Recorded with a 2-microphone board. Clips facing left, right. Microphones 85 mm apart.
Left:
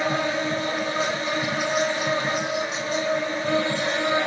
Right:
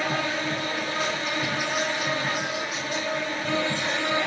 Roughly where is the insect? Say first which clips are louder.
Left 3 dB; left.